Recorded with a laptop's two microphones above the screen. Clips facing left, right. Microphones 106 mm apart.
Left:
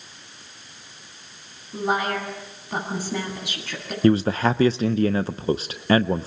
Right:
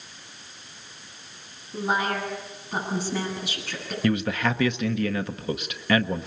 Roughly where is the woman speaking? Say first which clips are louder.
Left 2 dB; left.